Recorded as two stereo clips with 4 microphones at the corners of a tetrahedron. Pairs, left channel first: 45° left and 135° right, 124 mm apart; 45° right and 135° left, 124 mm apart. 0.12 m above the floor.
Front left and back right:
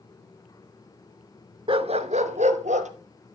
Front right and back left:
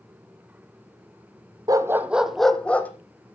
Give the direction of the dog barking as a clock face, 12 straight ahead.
6 o'clock.